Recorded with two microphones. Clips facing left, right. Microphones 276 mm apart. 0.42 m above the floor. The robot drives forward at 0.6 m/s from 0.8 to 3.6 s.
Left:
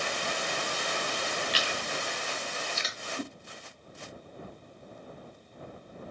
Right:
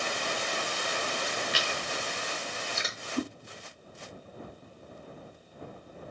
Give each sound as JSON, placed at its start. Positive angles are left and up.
{"t": 1.5, "sound": "chewing", "side_deg": -50, "distance_m": 1.0}
{"t": 3.2, "sound": "a whoosh", "side_deg": -70, "distance_m": 0.6}